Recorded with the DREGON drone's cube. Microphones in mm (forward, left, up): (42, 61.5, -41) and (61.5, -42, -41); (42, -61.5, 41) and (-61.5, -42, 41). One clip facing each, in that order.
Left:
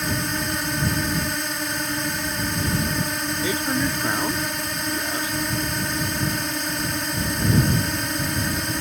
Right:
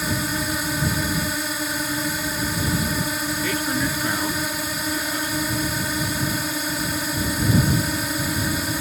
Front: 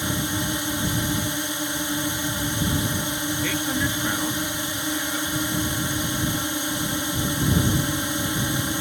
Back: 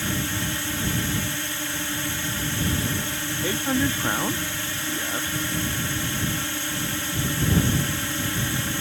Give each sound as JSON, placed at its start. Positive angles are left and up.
{"t": 0.0, "sound": "a drone", "azimuth_deg": 0}
{"t": 3.4, "sound": "a man speaking", "azimuth_deg": 155}